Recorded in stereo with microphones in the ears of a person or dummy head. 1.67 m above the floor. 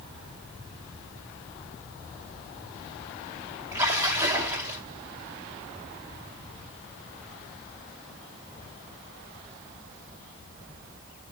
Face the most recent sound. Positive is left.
turn(degrees=-15)  # may be behind; listen again after turning